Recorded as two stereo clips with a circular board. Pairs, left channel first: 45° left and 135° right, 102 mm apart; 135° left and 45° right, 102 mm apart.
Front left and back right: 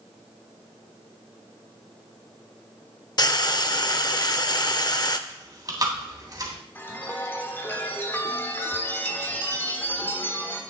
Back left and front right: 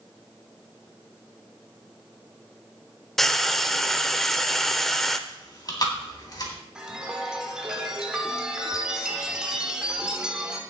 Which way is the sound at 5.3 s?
Straight behind.